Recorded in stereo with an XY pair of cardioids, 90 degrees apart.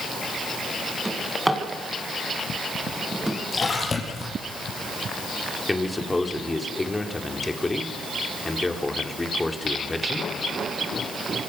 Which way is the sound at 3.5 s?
40° left.